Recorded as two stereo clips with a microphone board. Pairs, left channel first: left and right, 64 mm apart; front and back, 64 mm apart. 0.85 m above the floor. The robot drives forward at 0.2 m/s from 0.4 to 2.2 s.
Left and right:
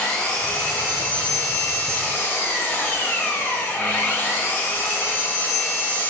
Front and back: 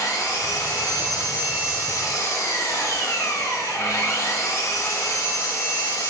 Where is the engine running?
20° left, 1.1 m; by 6.1 s 30° left, 0.8 m.